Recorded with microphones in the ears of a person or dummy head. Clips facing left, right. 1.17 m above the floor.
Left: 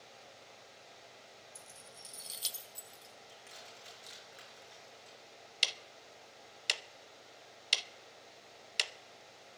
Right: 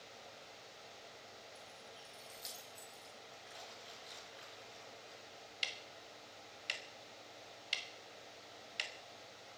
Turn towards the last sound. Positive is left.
turn(degrees=60)  # may be behind; listen again after turning